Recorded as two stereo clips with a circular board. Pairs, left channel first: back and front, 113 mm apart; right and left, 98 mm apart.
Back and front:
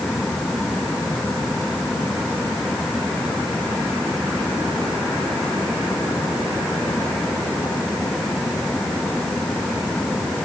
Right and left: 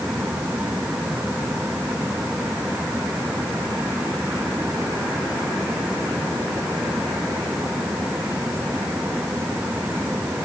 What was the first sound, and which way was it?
Only background noise.